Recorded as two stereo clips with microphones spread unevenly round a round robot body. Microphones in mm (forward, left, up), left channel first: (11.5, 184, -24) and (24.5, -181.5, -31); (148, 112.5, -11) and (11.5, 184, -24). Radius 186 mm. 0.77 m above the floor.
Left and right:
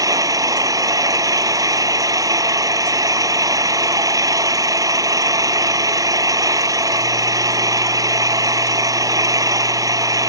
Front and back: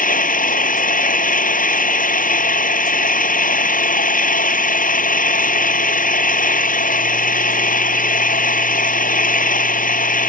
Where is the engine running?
5° right.